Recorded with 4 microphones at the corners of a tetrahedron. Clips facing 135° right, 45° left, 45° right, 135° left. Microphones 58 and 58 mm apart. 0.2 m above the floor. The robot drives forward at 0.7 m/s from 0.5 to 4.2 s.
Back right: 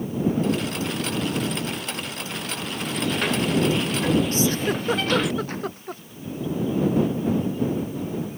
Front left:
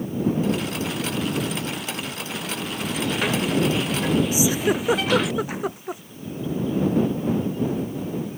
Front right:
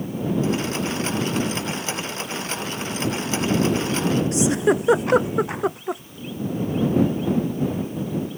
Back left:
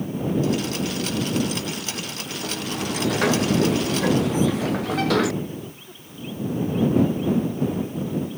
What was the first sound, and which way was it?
A sliding door, 130° left.